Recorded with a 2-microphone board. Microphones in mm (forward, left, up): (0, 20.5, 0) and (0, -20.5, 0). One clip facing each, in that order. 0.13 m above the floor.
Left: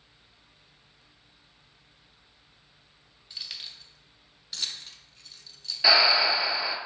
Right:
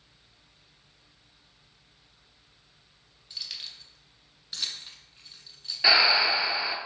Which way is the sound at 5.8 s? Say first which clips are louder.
Even; 10° right (ahead or behind).